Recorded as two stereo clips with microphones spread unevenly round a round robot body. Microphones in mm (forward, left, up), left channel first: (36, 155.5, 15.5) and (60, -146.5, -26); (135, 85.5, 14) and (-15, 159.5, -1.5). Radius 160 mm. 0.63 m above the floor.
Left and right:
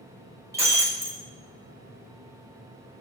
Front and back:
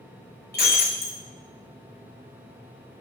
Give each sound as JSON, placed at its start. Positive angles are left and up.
{"t": 0.5, "sound": "breaking glass", "azimuth_deg": -5, "distance_m": 4.0}